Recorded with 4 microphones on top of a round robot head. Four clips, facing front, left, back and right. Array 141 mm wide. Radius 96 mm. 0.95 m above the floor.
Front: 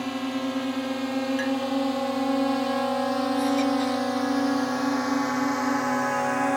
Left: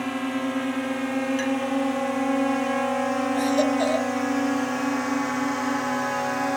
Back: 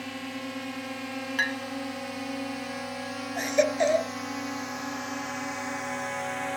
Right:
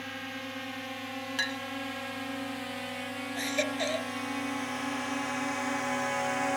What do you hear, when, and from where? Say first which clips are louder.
0.0 s a drone: left 13 dB, front 8 dB; 65° left; by 6.6 s 30° left
1.4 s a clink: left 11 dB, front 5 dB; 165° right
3.4 s a baby crying: left 9 dB, back 3 dB; 150° left